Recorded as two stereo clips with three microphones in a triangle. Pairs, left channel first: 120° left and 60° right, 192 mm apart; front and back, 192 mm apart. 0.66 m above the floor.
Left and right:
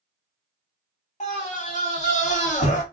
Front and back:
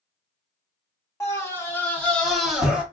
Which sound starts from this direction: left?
A scream, at 1.2 s.